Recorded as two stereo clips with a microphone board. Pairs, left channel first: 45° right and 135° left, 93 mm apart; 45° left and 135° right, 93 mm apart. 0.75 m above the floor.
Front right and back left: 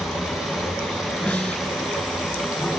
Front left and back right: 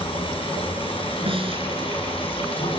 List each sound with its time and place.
0.0 s running water: 50° left, 6.5 m
1.3 s a snare drum: 125° right, 2.5 m